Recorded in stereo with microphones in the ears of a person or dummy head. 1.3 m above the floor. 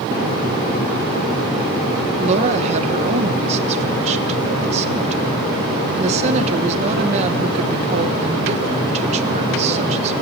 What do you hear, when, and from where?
2.2 s a woman speaking: 35° right (ahead or behind), 1.4 m